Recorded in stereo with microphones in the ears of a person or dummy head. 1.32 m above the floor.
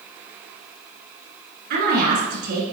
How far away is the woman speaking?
About 2 m.